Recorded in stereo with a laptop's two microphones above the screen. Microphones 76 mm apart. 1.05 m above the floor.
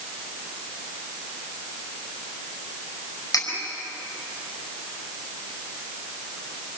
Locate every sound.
3.3 s cutlery clinking: 60° left (ahead or behind), 4.5 m